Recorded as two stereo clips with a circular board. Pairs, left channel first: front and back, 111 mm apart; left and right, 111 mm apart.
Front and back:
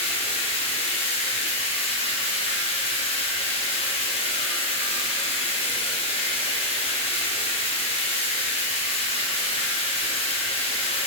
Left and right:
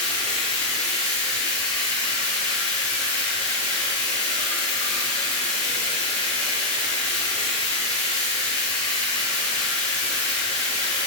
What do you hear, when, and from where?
0.0 s running water: 10° left, 0.9 m